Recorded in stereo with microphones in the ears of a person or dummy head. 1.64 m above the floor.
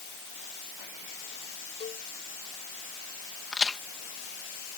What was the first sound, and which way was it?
A cowbell, 25° left (ahead or behind).